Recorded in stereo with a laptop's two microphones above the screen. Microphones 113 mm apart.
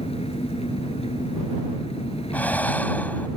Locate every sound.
0.0 s an engine running: 70° left (ahead or behind)
2.3 s breathing: 15° left (ahead or behind)